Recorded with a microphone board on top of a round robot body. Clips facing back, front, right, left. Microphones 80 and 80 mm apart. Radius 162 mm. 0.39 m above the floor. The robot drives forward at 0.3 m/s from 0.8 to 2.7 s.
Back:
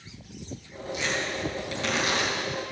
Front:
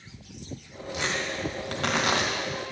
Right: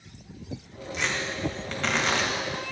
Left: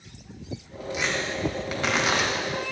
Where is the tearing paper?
10° left, 2 m.